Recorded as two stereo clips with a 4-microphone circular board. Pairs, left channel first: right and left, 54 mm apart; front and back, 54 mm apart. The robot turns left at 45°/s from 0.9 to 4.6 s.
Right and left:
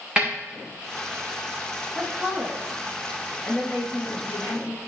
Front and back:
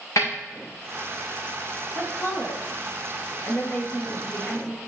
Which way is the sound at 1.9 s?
40° left.